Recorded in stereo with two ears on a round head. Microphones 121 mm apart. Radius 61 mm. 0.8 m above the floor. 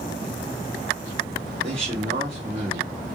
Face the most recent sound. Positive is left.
turn(degrees=-45)  # may be behind; listen again after turning